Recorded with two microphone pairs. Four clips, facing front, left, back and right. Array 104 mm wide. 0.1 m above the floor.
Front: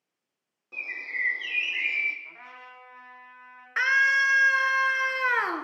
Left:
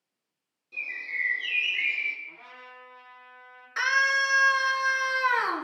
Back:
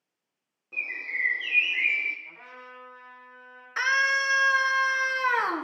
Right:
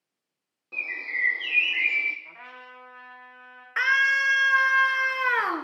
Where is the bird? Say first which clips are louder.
Right 2 dB, back 1 dB; 65° right, 1.4 m.